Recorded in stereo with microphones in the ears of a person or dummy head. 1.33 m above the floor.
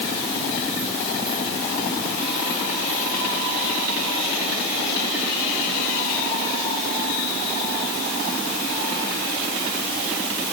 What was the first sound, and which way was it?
Only background noise.